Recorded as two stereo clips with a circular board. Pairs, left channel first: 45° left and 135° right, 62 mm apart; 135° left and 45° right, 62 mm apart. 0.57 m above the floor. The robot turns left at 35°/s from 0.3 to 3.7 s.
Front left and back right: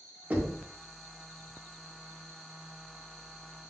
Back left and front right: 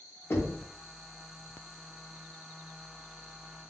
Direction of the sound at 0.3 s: 175° left.